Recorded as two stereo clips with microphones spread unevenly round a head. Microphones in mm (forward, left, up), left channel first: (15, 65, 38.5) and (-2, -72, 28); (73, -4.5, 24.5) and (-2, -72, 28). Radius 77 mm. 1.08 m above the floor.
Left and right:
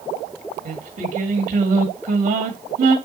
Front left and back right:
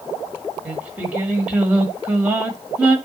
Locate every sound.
0.7 s singing: 65° right, 2 m